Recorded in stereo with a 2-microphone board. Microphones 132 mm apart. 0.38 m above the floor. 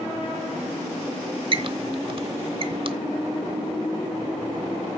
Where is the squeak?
45° right (ahead or behind), 0.8 m.